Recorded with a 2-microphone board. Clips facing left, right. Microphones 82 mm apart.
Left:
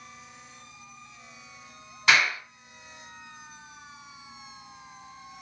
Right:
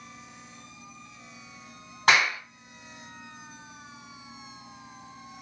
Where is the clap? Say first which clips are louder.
Right 1 dB; 50° right (ahead or behind), 2 m.